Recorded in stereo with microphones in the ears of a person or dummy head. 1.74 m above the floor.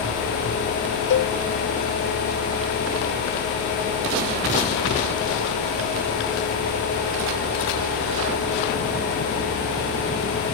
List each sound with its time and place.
1.1 s a cowbell: 60° left (ahead or behind), 0.6 m